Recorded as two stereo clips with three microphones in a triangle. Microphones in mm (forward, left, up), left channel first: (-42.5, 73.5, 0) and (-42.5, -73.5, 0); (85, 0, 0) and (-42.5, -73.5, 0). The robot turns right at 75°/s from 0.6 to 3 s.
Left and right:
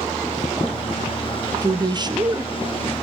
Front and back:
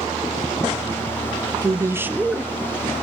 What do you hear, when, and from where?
1.6 s a woman speaking: 120° right, 0.5 m; by 2.5 s 50° right, 0.5 m